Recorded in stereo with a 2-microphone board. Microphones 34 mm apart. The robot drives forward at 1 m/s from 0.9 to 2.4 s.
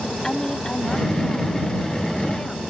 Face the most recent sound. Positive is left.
turn(degrees=20)  # may be behind; listen again after turning